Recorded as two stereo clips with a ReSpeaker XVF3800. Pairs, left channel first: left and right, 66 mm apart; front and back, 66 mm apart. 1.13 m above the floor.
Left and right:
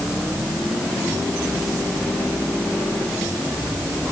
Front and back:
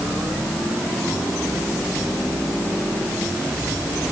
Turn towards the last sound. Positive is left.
No sound to turn to.